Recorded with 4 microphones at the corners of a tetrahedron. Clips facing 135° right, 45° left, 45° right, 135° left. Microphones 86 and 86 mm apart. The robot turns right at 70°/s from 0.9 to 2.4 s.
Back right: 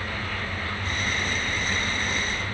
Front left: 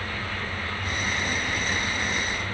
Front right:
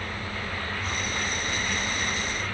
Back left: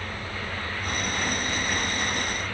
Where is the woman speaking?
I don't hear a woman speaking.